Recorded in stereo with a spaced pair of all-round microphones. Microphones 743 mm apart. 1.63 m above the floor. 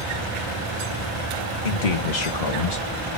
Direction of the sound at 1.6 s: 75° left (ahead or behind).